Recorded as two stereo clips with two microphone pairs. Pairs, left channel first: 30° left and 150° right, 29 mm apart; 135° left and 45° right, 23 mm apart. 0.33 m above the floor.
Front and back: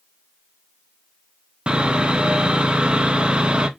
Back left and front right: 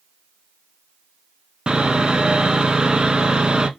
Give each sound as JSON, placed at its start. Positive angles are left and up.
{"t": 1.7, "sound": "sawing", "azimuth_deg": -90, "distance_m": 0.6}